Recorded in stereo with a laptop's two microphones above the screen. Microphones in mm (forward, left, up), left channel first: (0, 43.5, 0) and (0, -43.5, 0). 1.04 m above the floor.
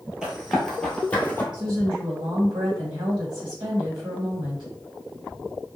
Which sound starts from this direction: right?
A woman speaking, at 1.5 s.